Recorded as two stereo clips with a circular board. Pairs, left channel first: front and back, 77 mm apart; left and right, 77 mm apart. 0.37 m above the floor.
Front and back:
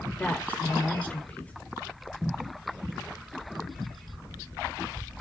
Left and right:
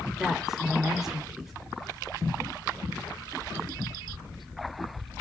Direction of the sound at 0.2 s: 15° right.